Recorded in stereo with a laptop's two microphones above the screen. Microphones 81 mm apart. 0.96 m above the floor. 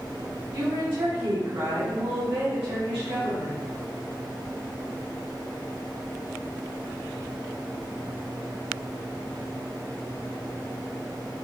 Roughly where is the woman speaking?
Right.